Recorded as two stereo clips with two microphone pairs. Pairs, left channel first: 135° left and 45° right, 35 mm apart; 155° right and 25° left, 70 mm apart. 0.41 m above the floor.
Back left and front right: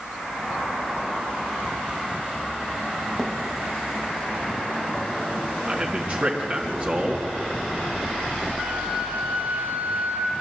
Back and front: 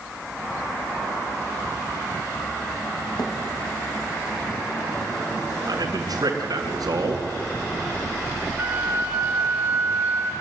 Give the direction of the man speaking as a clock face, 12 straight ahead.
12 o'clock.